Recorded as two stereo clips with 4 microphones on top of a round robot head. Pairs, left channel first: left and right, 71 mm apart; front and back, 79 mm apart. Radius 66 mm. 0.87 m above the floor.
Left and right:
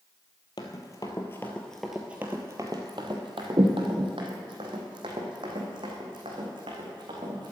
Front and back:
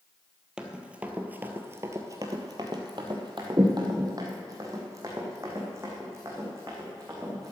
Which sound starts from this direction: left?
Running footsteps, at 0.6 s.